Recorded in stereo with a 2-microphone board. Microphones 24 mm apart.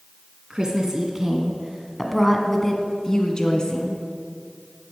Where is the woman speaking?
30° right (ahead or behind), 1.6 m; by 4.0 s 40° left (ahead or behind), 1.8 m.